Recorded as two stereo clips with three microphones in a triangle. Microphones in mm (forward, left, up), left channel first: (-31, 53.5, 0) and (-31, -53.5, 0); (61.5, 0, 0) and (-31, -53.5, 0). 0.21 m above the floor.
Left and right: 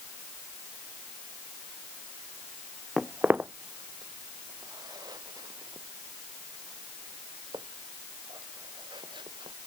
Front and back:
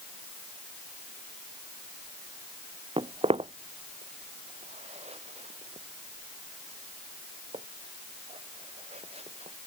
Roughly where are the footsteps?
Behind.